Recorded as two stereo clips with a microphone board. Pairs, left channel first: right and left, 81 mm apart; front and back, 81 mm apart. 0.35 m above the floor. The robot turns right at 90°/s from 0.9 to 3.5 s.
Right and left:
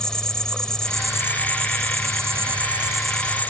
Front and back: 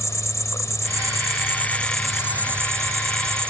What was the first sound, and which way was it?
An insect, 15° right.